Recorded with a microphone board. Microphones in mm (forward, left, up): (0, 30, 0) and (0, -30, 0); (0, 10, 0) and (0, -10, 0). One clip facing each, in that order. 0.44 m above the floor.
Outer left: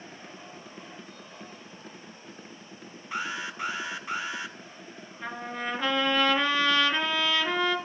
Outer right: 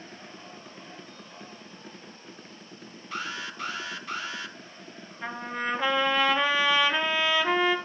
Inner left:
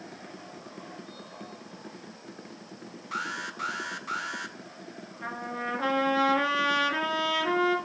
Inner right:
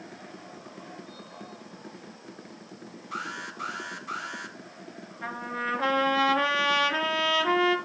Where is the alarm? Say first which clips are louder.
Outer left 2 dB, inner left 2 dB; 20° left (ahead or behind), 2.0 m.